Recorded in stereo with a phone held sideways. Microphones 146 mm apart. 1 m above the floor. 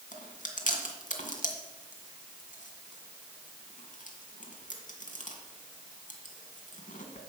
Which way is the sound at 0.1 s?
70° left (ahead or behind).